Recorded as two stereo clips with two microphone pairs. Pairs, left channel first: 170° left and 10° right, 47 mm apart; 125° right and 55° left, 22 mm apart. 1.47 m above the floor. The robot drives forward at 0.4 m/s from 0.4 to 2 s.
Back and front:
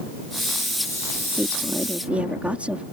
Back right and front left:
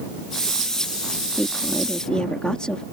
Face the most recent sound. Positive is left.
turn(degrees=-75)